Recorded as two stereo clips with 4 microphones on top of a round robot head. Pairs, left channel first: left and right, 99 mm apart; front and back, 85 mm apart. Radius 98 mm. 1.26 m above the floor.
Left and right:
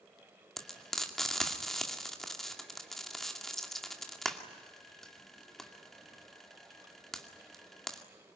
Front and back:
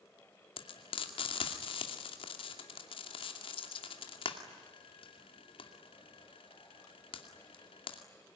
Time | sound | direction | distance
0.6 | frying | 5° left | 2.5 m